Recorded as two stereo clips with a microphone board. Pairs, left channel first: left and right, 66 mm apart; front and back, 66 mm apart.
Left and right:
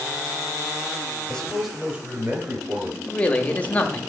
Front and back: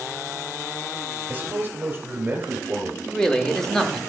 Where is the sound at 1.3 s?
150° left, 0.9 m; by 3.0 s 125° right, 1.6 m.